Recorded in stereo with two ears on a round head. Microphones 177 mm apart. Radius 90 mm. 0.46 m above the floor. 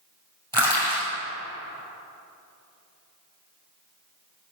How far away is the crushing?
About 2.5 m.